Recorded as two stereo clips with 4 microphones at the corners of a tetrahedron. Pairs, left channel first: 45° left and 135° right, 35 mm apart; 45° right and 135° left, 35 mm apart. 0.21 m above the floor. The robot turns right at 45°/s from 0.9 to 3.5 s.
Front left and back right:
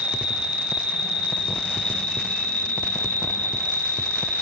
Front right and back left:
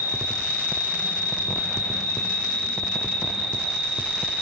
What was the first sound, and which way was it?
An insect, 70° right.